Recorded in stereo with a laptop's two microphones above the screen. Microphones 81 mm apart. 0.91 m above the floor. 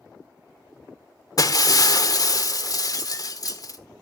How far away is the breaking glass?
About 1.2 m.